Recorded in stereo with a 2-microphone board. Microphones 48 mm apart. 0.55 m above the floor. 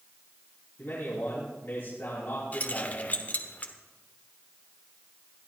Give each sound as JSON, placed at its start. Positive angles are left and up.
{"t": 0.8, "sound": "a man speaking", "side_deg": 50, "distance_m": 4.0}
{"t": 2.5, "sound": "keys jangling", "side_deg": 35, "distance_m": 1.2}